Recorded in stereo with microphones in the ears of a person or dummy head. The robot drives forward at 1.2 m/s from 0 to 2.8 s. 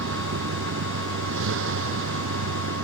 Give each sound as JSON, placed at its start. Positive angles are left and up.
{"t": 0.0, "sound": "a vehicle", "side_deg": -75}